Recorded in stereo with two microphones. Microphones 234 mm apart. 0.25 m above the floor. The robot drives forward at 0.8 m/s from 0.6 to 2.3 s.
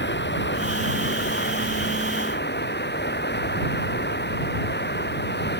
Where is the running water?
50° left (ahead or behind).